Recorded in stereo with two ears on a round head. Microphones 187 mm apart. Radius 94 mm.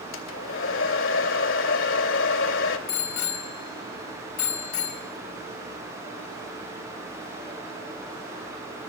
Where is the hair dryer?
70° left (ahead or behind), 2.5 m.